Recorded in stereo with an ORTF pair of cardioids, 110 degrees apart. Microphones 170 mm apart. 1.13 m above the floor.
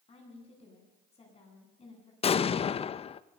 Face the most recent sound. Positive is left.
turn(degrees=40)